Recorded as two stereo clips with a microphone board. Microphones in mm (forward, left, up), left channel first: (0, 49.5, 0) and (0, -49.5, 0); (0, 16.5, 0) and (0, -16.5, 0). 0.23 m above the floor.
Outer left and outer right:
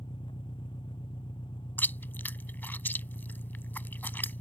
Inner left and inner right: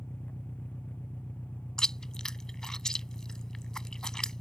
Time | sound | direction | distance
0.0 | an engine running | 60° left (ahead or behind) | ?
1.8 | chewing | 20° left (ahead or behind) | ?